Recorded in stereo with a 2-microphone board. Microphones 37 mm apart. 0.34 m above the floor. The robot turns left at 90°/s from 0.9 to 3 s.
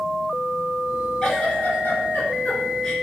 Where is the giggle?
15° left (ahead or behind), 3 m; by 2.9 s 10° left (ahead or behind), 3 m.